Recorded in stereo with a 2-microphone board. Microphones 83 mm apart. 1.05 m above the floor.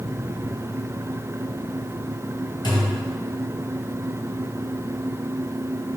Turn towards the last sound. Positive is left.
turn(degrees=65)  # may be behind; listen again after turning